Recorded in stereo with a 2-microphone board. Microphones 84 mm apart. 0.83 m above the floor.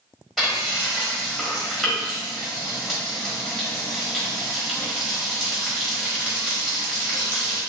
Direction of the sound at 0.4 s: Centre (ahead or behind).